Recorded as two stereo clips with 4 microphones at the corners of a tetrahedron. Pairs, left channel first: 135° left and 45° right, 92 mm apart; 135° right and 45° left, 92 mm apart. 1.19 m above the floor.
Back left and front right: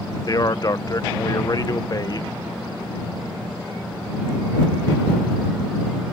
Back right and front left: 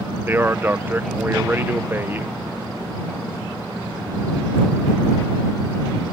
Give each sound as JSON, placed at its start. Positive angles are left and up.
{"t": 0.3, "sound": "a man speaking", "azimuth_deg": 105}